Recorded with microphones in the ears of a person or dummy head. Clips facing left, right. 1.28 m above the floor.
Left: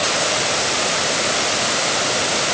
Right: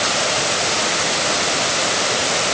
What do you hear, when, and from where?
Only background noise.